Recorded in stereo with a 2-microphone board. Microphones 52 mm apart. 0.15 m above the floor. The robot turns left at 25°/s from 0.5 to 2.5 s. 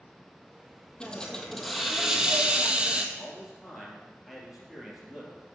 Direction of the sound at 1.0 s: 20° left.